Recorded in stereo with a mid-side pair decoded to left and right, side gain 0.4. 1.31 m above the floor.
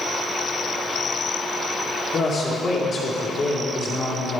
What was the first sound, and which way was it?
A man speaking, 45° left.